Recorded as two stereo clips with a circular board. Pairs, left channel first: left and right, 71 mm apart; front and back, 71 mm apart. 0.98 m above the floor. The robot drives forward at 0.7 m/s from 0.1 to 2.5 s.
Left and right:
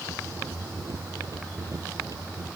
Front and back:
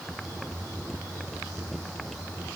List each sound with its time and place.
Only background noise.